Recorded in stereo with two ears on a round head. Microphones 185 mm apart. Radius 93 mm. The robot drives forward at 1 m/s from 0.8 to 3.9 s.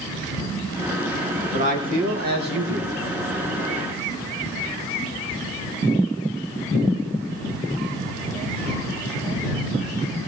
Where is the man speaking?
35° right (ahead or behind), 3 m; by 2.9 s 60° right (ahead or behind), 2 m.